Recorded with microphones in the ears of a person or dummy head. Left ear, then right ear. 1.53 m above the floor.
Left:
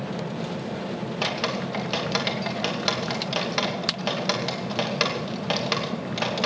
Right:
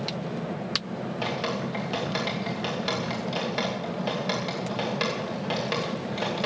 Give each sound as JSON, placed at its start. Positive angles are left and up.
{"t": 1.2, "sound": "dripping", "side_deg": 15, "distance_m": 2.5}